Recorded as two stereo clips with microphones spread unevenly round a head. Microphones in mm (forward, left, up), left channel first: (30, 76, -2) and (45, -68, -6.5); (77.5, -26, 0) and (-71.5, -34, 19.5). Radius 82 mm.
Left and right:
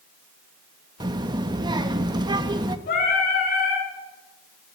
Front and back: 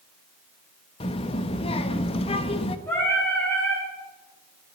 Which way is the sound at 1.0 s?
40° right.